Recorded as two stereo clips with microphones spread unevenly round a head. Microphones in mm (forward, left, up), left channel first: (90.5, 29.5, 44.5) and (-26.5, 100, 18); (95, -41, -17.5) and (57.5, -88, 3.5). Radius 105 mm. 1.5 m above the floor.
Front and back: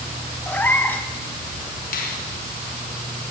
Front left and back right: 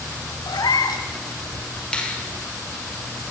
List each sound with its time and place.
0.5 s a cat meowing: 40° left, 3 m
1.9 s a finger snap: 25° right, 5 m